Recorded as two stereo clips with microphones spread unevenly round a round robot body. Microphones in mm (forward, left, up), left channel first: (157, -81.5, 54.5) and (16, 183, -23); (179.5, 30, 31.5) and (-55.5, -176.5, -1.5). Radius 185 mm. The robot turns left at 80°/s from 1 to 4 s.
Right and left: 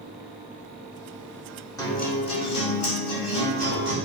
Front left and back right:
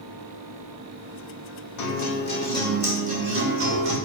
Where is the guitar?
25° left, 2.5 m; by 4.0 s 150° right, 2.5 m.